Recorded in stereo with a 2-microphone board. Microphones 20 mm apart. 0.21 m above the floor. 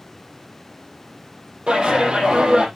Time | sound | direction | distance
1.7 | a clap | 50° right (ahead or behind) | 5.5 m